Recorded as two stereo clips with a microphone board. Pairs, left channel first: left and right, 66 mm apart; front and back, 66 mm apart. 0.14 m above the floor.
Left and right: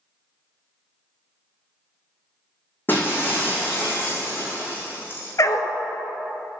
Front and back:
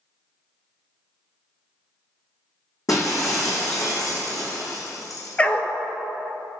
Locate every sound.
2.9 s breaking glass: 30° left, 3 m
5.4 s a dog barking: 65° left, 0.6 m